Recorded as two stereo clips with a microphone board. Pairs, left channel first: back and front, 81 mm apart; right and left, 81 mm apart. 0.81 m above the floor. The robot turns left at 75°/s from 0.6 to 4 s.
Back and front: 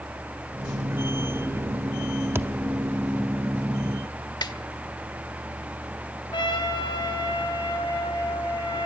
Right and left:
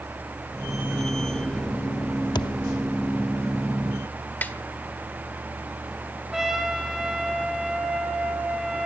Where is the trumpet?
175° left, 3.5 m.